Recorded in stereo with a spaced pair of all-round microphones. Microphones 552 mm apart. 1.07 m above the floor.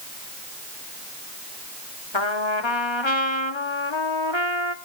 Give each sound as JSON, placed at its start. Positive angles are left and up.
{"t": 2.1, "sound": "a trumpet", "side_deg": 55, "distance_m": 1.2}